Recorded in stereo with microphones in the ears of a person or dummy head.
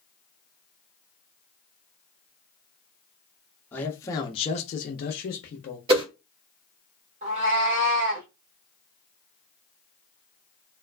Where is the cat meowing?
35° right (ahead or behind), 1.1 m.